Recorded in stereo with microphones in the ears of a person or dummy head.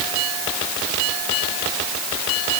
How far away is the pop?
I don't hear a pop.